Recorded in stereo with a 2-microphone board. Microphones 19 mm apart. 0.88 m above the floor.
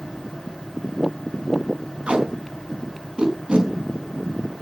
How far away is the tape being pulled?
About 5.5 m.